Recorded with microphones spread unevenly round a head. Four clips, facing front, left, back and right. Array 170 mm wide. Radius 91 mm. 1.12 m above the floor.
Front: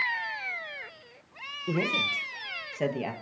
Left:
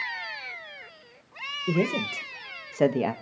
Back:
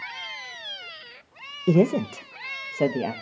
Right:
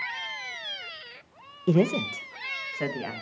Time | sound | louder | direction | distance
1.7 | a man speaking | right 3 dB, back 10 dB | 170° right | 0.8 m